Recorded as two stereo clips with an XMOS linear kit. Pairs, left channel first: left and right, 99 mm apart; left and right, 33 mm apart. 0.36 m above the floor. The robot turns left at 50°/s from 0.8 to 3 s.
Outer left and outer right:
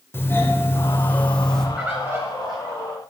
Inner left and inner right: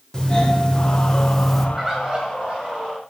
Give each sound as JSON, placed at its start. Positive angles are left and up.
{"t": 0.1, "sound": "a doorbell", "side_deg": 25, "distance_m": 1.5}
{"t": 1.8, "sound": "a bird", "azimuth_deg": -10, "distance_m": 4.5}